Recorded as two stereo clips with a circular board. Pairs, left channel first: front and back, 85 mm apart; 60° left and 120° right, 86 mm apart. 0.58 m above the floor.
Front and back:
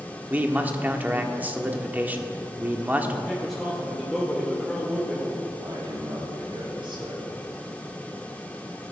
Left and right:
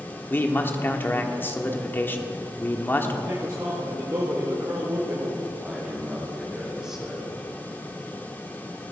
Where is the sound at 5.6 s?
155° left, 3.5 m.